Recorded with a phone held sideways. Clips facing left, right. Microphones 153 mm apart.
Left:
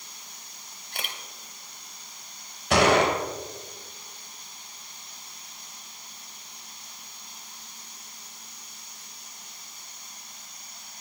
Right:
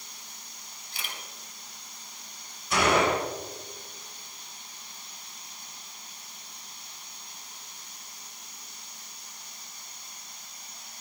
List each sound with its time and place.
0.9 s a camera shutter: 60° left (ahead or behind), 2.5 m
2.7 s a gunshot: 75° left (ahead or behind), 3.5 m